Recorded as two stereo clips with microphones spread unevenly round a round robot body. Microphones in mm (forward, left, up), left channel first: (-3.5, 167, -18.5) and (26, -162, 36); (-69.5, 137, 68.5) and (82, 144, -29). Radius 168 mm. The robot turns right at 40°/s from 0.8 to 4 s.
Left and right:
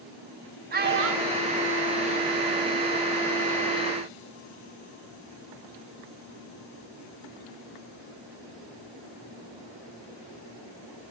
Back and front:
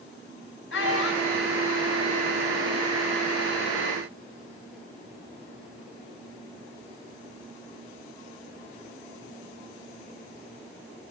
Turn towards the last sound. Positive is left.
turn(degrees=-20)